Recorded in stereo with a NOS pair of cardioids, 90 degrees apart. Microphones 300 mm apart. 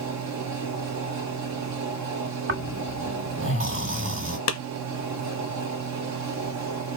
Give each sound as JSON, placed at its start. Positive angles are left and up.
{"t": 0.0, "sound": "a fan", "azimuth_deg": -65, "distance_m": 1.0}
{"t": 2.5, "sound": "snoring", "azimuth_deg": -45, "distance_m": 1.6}
{"t": 4.5, "sound": "a clap", "azimuth_deg": 55, "distance_m": 1.0}